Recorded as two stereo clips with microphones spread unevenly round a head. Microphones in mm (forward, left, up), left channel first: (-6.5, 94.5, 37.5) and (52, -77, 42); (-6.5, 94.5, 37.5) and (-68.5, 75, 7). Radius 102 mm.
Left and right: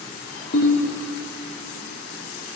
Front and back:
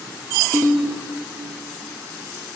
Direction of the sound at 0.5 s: 75° left.